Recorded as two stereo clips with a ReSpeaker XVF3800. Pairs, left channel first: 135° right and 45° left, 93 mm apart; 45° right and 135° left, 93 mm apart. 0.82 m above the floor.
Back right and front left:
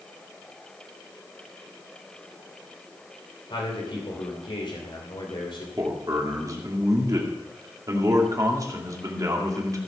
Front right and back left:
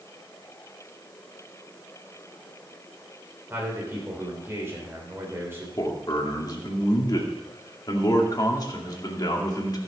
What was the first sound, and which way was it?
A man speaking, 160° right.